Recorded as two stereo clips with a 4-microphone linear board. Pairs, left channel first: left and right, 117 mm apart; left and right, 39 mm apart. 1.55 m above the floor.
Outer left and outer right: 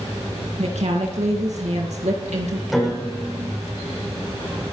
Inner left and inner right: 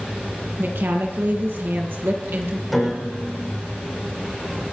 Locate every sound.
0.6 s a woman speaking: 75° right (ahead or behind), 2 m
2.7 s a piano: centre (ahead or behind), 7 m